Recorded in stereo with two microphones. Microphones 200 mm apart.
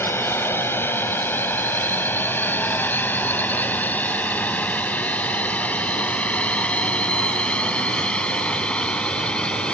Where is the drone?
10° left (ahead or behind); by 9.8 s 5° left (ahead or behind).